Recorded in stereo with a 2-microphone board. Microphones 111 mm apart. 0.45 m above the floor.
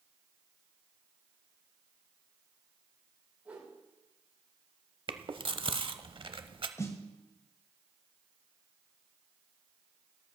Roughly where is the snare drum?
Left.